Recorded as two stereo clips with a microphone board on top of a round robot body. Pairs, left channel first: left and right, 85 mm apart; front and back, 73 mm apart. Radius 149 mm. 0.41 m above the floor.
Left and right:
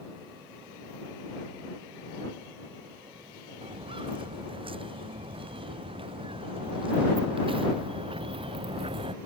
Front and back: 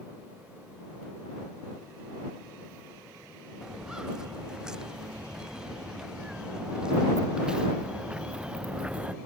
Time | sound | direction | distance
3.6 | footsteps | 100° right | ?